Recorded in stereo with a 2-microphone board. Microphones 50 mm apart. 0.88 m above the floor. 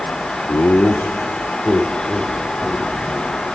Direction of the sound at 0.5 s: 50° left (ahead or behind).